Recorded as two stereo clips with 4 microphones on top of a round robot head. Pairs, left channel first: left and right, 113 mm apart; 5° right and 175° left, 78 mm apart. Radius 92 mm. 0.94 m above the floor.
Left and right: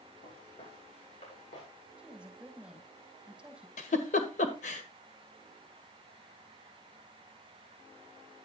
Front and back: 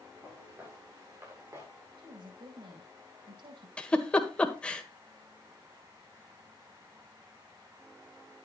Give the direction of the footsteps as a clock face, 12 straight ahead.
8 o'clock.